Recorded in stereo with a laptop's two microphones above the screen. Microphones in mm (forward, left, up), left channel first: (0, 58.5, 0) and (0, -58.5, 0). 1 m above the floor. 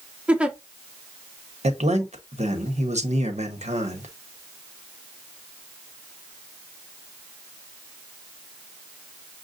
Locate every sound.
0.3 s a giggle: 10° right (ahead or behind), 0.6 m
1.6 s a man speaking: 75° right (ahead or behind), 1.1 m